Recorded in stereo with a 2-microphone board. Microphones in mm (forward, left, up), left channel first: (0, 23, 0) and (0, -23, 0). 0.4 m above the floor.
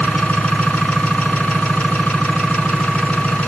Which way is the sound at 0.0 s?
25° left (ahead or behind).